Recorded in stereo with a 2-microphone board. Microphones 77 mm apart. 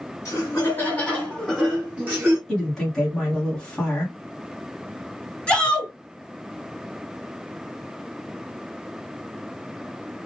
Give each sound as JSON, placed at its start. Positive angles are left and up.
{"t": 0.2, "sound": "laughter", "side_deg": 35, "distance_m": 1.6}
{"t": 2.5, "sound": "a woman speaking", "side_deg": 5, "distance_m": 1.3}
{"t": 5.5, "sound": "a shout", "side_deg": 10, "distance_m": 1.8}